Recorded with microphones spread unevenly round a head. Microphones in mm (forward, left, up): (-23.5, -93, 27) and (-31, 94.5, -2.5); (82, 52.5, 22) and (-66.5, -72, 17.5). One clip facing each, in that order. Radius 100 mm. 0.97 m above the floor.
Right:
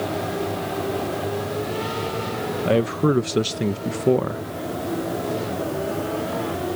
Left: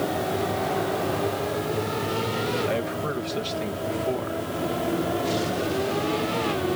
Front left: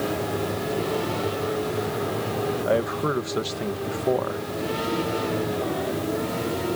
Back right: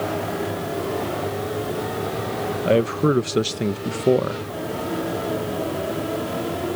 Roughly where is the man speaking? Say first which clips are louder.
Right 8 dB, back right 8 dB; right.